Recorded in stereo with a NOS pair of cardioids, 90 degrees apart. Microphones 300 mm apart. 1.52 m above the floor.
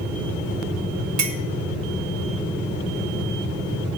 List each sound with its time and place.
1.2 s a clink: 70° right, 1.8 m